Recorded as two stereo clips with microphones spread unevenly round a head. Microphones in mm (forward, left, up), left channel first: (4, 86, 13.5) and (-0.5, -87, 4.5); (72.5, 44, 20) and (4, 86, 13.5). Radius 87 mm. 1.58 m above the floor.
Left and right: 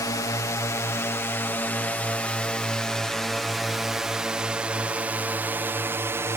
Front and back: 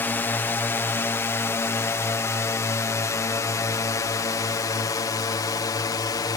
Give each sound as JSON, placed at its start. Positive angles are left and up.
{"t": 0.0, "sound": "a drone", "azimuth_deg": 25}